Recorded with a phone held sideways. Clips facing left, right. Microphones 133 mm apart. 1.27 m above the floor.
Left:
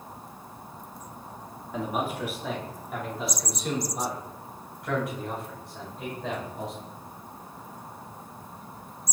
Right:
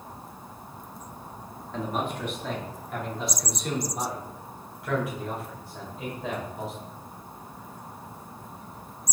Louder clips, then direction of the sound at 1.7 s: Left 1 dB; 10° left (ahead or behind).